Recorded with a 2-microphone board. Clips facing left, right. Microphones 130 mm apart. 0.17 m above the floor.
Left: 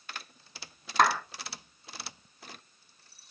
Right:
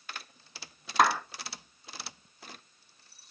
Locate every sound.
1.0 s a clap: 5° right (ahead or behind), 1.0 m